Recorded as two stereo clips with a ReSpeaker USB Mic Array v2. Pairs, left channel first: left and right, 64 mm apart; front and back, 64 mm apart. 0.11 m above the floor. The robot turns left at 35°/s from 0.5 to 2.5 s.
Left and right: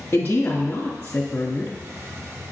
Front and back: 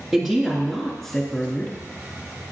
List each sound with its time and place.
0.1 s a woman speaking: 90° left, 1.3 m; by 1.8 s 45° left, 1.3 m